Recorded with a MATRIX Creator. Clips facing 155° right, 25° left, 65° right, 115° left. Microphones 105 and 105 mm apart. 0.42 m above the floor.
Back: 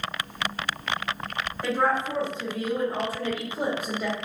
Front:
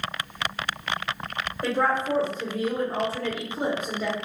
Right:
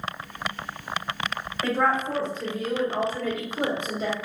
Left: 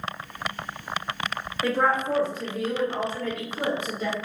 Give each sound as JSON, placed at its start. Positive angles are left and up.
{"t": 1.6, "sound": "a woman speaking", "azimuth_deg": 45, "distance_m": 1.6}